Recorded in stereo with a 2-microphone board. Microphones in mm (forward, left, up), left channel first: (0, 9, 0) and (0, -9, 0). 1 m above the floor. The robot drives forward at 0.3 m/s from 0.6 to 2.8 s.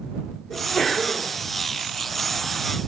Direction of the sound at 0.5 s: 75° left (ahead or behind).